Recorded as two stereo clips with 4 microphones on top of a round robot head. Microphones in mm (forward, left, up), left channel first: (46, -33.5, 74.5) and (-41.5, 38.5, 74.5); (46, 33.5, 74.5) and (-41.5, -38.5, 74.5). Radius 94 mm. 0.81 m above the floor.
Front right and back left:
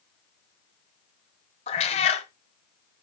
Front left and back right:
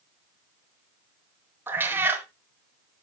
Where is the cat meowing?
70° right, 1.0 m.